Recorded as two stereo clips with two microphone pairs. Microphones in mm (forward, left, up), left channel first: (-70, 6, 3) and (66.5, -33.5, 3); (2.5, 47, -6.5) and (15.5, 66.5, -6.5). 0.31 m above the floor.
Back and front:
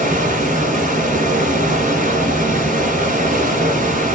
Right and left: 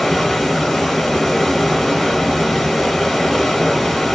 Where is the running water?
40° right, 1.2 m.